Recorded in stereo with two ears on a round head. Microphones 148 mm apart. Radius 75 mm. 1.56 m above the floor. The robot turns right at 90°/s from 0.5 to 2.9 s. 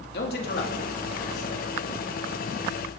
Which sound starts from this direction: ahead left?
A man speaking, at 0.1 s.